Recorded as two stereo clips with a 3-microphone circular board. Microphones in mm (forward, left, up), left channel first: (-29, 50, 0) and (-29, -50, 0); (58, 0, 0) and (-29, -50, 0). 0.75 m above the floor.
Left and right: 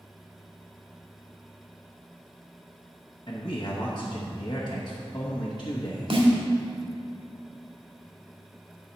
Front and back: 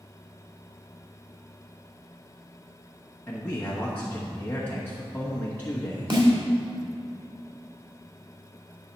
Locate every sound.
3.3 s a man speaking: 95° left, 1.0 m
6.1 s a snare drum: 115° right, 1.7 m